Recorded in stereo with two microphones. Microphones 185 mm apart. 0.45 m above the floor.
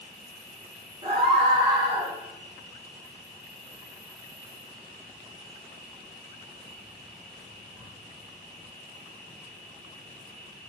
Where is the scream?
30° right (ahead or behind), 0.9 m.